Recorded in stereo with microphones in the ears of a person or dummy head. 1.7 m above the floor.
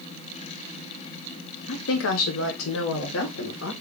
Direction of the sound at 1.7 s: 70° left (ahead or behind).